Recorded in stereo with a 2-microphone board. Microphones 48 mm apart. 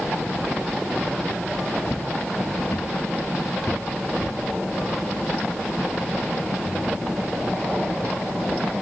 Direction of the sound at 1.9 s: 50° left (ahead or behind).